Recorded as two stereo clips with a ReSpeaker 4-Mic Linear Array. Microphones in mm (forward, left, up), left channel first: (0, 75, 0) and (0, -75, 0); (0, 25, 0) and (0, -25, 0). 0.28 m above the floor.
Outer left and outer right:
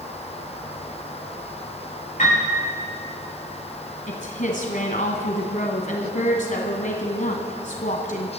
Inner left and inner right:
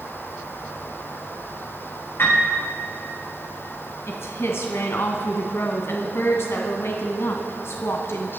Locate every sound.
2.2 s a piano: 55° left (ahead or behind), 7.5 m
4.1 s a woman speaking: 60° left (ahead or behind), 1.9 m